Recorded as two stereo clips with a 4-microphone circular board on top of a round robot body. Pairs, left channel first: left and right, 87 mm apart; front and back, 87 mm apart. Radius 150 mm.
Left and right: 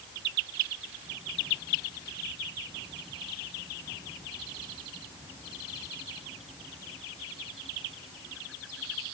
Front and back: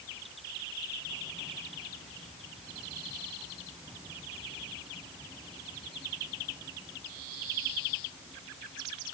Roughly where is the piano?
No piano in this recording.